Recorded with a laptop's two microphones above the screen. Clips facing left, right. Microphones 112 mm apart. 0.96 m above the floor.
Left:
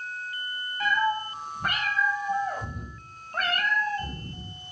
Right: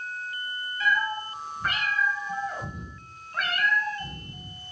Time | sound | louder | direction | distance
0.8 | a cat meowing | left 2 dB | 50° left (ahead or behind) | 2.5 m